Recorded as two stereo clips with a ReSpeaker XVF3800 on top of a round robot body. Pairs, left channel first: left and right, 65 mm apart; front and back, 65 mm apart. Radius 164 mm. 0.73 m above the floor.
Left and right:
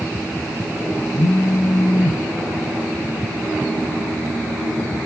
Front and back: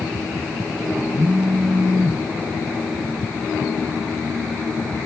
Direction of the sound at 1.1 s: 110° left.